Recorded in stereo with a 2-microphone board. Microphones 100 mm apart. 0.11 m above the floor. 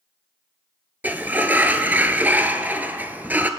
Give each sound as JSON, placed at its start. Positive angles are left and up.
{"t": 1.0, "sound": "a sliding door", "side_deg": -20, "distance_m": 0.7}